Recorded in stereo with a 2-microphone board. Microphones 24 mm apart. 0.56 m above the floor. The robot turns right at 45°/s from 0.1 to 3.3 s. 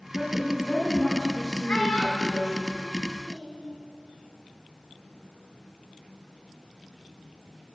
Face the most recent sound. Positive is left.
turn(degrees=35)  # may be behind; listen again after turning